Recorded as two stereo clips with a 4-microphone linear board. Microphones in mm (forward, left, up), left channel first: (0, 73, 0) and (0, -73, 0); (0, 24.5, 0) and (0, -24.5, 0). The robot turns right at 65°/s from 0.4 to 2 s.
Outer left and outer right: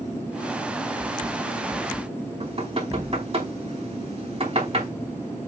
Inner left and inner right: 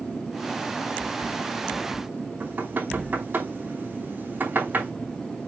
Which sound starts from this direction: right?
Knocking, at 2.4 s.